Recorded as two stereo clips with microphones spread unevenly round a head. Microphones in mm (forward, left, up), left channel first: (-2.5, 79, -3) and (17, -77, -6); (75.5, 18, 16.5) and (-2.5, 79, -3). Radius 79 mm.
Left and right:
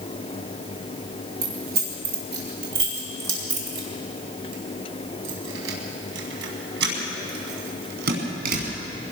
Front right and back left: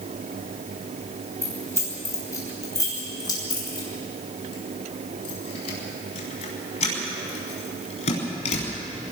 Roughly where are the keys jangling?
Behind right.